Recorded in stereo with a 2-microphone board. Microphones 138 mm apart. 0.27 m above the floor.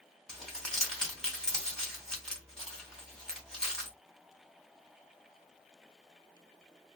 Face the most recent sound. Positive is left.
turn(degrees=5)  # may be behind; listen again after turning